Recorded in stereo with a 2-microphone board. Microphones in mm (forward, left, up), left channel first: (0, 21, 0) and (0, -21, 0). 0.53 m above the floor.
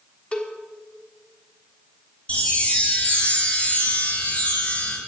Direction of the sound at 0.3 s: 30° left (ahead or behind).